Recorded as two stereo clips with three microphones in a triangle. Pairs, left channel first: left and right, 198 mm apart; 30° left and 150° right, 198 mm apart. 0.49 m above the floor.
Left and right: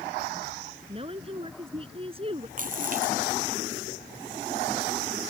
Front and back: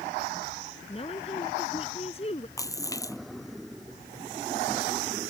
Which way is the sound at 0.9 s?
30° right.